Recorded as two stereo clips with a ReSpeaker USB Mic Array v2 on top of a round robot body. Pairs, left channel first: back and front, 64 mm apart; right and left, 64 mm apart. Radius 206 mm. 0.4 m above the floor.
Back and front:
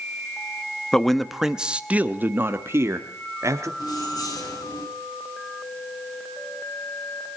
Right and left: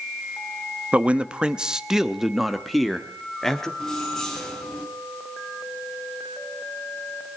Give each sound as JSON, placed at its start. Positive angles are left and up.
{"t": 0.9, "sound": "a man speaking", "azimuth_deg": 115, "distance_m": 1.1}
{"t": 3.8, "sound": "keys jangling", "azimuth_deg": -170, "distance_m": 5.0}